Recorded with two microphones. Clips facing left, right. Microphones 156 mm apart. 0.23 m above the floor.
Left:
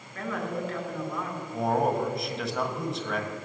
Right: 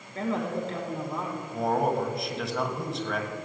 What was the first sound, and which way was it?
A woman speaking, 30° right (ahead or behind).